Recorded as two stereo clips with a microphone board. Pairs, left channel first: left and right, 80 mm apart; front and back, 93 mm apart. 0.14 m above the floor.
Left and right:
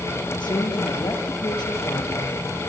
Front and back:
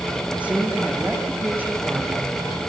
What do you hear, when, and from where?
0.4 s a woman speaking: 105° left, 6 m; by 2.6 s 115° left, 6.5 m